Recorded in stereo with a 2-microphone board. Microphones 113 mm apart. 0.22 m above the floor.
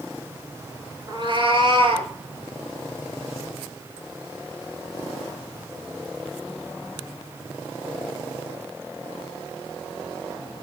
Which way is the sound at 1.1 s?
45° right (ahead or behind).